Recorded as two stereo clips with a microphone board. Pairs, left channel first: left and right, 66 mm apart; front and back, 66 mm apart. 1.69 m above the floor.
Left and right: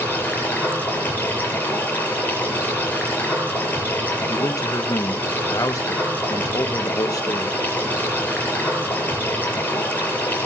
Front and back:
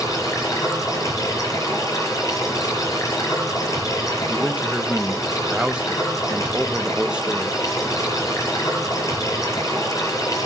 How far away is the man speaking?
About 1.4 m.